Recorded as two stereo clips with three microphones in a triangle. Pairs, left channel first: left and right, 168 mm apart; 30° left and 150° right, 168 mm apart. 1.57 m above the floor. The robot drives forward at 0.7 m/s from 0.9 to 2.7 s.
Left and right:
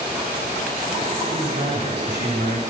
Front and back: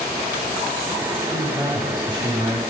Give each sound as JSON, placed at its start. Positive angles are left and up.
{"t": 1.3, "sound": "a man speaking", "azimuth_deg": -80, "distance_m": 3.5}